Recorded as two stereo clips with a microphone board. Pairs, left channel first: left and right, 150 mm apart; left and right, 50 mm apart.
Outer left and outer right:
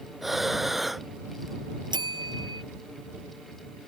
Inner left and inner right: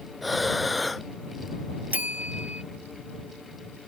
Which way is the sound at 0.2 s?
Centre (ahead or behind).